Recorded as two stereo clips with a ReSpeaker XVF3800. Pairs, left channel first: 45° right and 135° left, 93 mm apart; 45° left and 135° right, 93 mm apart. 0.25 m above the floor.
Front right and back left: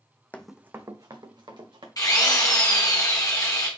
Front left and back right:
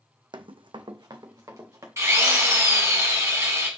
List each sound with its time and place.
0.3 s running footsteps: 115° right, 0.5 m; by 1.9 s 165° left, 1.9 m
2.0 s a drill: 85° right, 1.6 m